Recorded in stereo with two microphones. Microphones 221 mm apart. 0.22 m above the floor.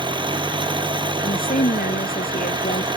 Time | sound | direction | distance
0.0 | an engine running | 20° right (ahead or behind) | ?
1.2 | a woman speaking | 40° left (ahead or behind) | ?